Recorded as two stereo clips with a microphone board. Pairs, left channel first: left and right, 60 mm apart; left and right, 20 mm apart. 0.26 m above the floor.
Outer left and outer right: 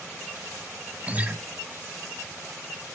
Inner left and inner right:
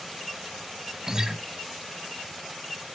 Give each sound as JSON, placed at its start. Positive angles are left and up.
{"t": 1.1, "sound": "a guitar", "side_deg": -25, "distance_m": 0.7}